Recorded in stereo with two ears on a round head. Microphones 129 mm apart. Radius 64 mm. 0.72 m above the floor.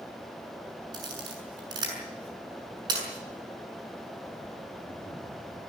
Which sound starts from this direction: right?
A camera shutter, at 0.9 s.